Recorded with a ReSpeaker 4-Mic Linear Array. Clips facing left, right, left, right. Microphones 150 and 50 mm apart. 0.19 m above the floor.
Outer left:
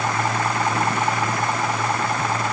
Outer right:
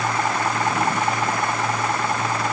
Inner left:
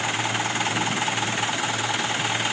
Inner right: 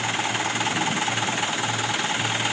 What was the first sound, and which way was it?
Only background noise.